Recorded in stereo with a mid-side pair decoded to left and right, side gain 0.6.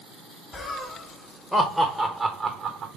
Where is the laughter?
30° left, 1.5 m; by 2.9 s 55° right, 0.9 m.